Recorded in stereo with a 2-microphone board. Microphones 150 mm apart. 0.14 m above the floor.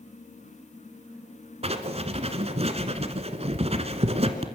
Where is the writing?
40° right (ahead or behind), 1.8 m.